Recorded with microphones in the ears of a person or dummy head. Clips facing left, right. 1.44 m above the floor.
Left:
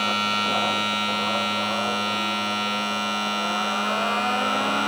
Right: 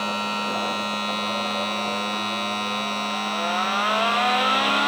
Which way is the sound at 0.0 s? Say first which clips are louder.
Even; 5° left (ahead or behind).